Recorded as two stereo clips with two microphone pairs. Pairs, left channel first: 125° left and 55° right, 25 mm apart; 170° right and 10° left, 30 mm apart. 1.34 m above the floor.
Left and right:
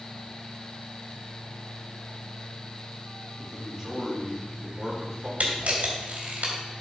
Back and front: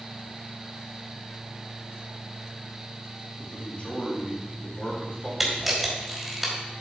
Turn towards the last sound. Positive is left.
turn(degrees=-75)